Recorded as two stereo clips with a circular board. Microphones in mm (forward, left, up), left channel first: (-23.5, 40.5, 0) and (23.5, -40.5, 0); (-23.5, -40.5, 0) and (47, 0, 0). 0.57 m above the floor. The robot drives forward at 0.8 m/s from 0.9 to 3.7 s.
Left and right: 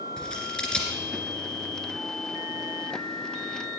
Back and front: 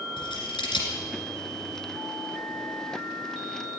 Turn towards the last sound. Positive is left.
turn(degrees=-170)